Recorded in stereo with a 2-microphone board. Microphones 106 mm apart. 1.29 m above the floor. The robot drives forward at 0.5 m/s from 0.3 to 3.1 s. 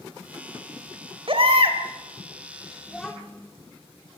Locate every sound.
1.3 s a baby crying: 60° right (ahead or behind), 2.5 m; by 1.8 s 65° right (ahead or behind), 2.5 m
2.9 s a child speaking: 5° left (ahead or behind), 2.5 m